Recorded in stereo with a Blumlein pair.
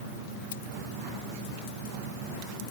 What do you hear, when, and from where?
0.5 s cutlery clinking: 65° left